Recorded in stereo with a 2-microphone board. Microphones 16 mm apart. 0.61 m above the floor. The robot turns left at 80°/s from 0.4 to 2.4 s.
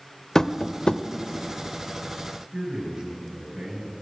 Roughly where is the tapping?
Left.